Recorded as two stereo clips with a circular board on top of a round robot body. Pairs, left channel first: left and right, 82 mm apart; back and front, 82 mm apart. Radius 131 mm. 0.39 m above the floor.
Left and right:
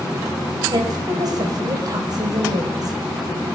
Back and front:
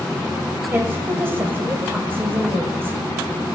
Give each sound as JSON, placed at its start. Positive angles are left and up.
{"t": 0.7, "sound": "a woman speaking", "azimuth_deg": -60, "distance_m": 3.0}